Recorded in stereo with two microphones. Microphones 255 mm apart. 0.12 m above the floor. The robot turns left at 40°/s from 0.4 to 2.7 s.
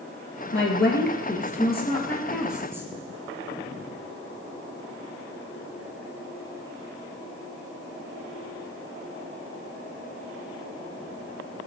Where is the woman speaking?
75° left, 1.8 m; by 2.9 s 10° right, 1.8 m.